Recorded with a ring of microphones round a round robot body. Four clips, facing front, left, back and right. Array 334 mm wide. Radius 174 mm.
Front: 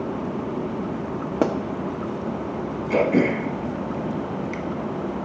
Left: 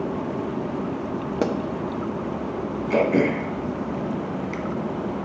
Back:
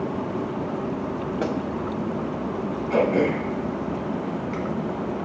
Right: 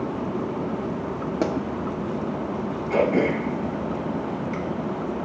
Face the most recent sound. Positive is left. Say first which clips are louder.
# left 1 dB, front 1 dB
turn(degrees=45)